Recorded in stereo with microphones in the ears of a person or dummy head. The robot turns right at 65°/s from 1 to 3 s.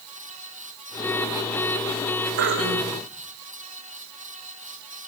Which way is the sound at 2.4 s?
120° right.